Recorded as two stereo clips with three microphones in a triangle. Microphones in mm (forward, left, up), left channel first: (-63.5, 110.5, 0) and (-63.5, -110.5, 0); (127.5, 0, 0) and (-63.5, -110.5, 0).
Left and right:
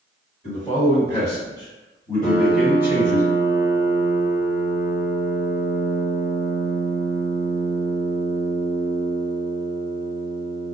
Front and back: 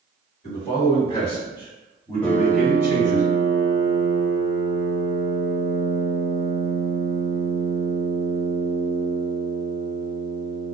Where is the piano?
105° left, 1.2 m.